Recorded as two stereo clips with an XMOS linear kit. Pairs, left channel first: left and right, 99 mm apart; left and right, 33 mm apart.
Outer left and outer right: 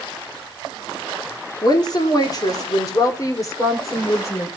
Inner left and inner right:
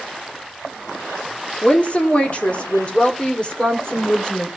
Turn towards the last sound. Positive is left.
turn(degrees=30)  # may be behind; listen again after turning